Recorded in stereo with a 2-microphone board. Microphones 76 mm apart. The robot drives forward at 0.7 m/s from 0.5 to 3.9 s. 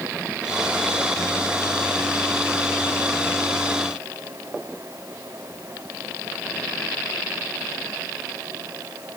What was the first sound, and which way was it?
Only background noise.